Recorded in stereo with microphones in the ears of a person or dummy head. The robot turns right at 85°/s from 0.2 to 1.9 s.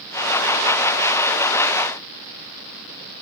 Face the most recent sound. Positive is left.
No sound to turn to.